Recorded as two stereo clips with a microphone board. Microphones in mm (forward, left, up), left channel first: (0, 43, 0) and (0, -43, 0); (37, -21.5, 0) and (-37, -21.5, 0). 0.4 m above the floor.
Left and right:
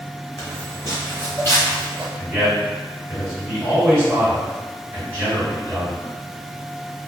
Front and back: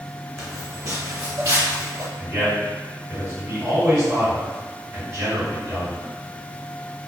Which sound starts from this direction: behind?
A man speaking, at 2.2 s.